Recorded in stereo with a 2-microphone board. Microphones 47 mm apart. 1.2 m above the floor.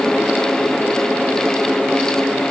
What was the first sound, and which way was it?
Only background noise.